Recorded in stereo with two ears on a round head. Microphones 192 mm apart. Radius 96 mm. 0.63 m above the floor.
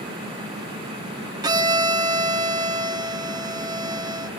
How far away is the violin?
About 0.7 m.